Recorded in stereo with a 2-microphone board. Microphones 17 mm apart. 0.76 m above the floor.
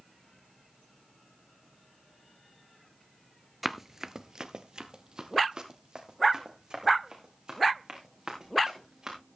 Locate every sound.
3.6 s running footsteps: 10° right (ahead or behind), 0.8 m; by 9.2 s 45° right (ahead or behind), 5.5 m